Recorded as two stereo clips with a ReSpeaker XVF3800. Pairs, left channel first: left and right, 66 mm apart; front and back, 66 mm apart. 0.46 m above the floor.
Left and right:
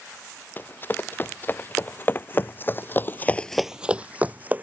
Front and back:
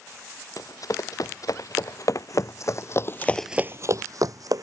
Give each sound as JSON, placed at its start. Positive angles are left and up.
{"t": 0.6, "sound": "running footsteps", "azimuth_deg": 30}